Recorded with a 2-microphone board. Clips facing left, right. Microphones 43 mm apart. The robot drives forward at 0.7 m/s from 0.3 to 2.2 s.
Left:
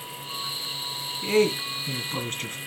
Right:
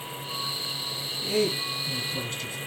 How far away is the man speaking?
About 1.9 m.